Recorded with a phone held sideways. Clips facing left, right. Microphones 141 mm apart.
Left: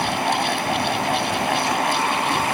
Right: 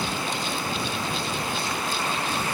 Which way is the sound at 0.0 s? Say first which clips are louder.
Left 8 dB; 65° left (ahead or behind).